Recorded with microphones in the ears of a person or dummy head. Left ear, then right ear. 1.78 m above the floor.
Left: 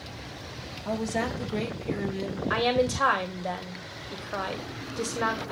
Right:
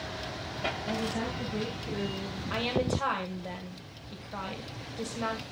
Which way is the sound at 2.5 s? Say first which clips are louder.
Left 5 dB; 70° left (ahead or behind).